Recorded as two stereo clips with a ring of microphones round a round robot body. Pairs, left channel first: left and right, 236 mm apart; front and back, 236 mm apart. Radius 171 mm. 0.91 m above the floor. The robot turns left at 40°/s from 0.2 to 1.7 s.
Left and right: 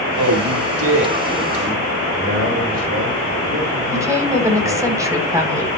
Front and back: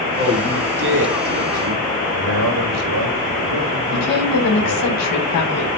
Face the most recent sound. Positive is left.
turn(degrees=-15)